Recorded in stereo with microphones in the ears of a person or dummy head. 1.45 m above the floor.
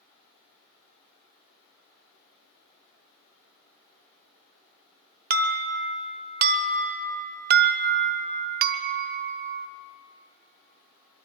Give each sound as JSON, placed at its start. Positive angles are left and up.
{"t": 5.3, "sound": "an alarm", "side_deg": -50, "distance_m": 0.7}